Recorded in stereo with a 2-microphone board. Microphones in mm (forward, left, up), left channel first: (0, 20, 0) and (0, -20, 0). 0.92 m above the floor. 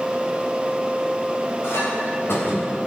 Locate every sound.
1.6 s a clink: 80° left, 4 m